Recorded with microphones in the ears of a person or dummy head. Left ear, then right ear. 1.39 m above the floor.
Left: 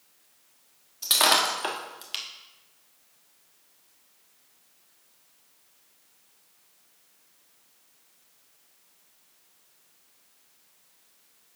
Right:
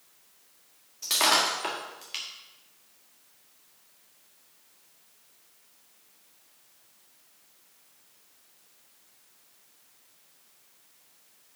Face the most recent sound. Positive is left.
turn(degrees=15)  # may be behind; listen again after turning